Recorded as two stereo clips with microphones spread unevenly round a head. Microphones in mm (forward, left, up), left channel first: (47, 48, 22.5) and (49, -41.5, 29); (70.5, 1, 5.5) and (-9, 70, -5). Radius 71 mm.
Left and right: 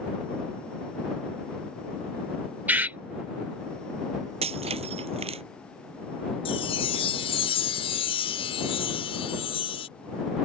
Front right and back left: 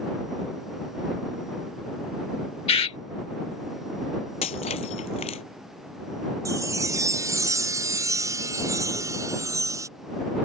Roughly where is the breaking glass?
Right.